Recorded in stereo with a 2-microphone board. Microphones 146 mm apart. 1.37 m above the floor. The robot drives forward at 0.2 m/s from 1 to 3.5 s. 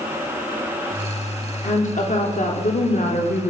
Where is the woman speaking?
55° left (ahead or behind), 1.0 m; by 3.5 s 70° left (ahead or behind), 0.9 m.